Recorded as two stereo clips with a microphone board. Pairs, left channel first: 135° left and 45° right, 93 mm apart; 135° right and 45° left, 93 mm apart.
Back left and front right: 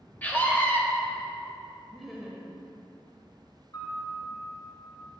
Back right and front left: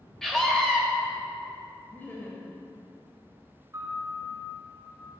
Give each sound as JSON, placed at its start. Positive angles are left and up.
{"t": 0.2, "sound": "a scream", "azimuth_deg": 150, "distance_m": 0.9}
{"t": 1.9, "sound": "laughter", "azimuth_deg": -135, "distance_m": 0.9}
{"t": 3.7, "sound": "a piano", "azimuth_deg": 100, "distance_m": 1.9}